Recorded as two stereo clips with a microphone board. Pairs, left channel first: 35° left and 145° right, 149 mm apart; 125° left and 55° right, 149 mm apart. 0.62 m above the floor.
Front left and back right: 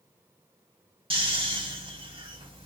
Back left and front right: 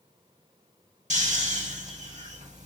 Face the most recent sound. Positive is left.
turn(degrees=-90)